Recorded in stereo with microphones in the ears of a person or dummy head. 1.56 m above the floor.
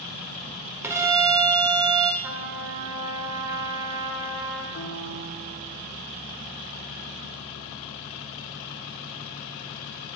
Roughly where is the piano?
Left.